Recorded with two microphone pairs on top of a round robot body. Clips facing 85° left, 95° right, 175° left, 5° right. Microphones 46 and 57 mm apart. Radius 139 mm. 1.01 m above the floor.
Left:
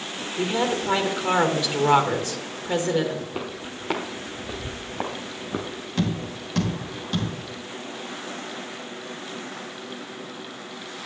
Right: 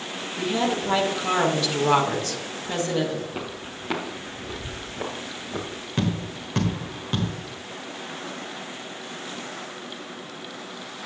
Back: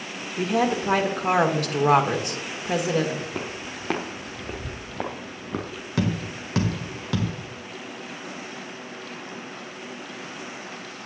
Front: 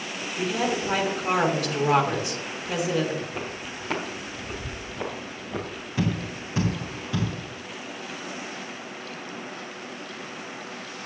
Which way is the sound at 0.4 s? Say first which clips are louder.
Left 1 dB, back 3 dB; 160° left.